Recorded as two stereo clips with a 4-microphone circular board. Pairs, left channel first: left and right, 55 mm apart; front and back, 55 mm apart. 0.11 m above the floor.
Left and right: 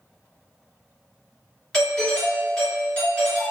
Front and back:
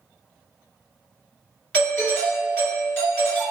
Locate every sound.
1.7 s a doorbell: 40° left, 1.6 m